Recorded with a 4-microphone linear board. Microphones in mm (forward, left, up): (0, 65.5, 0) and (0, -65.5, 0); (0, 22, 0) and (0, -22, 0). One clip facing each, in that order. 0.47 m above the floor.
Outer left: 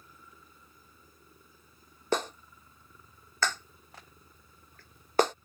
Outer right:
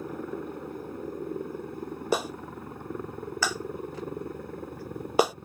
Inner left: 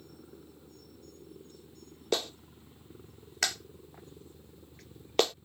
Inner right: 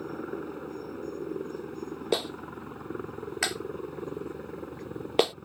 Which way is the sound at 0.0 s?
70° right (ahead or behind).